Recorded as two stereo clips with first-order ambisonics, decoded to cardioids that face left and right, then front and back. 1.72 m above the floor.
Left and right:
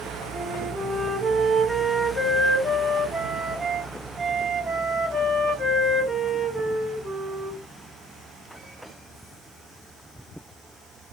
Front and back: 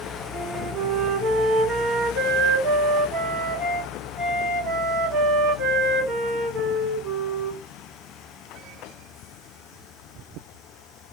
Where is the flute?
155° right, 1.5 m.